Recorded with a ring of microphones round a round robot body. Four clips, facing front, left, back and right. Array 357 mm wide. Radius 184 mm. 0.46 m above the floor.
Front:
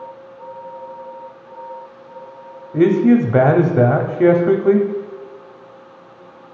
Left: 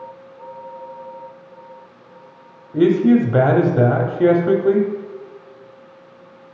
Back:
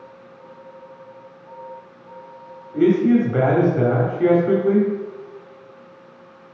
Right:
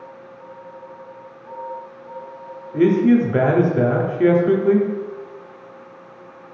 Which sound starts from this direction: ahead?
A man speaking, at 2.7 s.